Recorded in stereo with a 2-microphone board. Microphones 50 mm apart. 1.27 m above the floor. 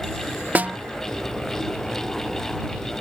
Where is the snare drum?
35° right (ahead or behind).